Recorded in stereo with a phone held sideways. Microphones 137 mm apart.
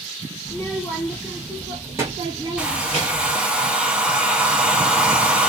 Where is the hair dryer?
10° right (ahead or behind), 0.7 m.